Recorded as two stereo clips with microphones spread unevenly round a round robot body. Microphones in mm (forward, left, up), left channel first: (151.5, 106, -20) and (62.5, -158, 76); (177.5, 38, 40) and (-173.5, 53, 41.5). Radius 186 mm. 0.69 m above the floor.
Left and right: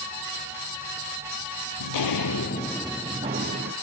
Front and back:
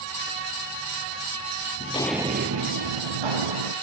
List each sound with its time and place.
1.8 s footsteps: 60° left, 1.1 m; by 3.7 s 165° right, 2 m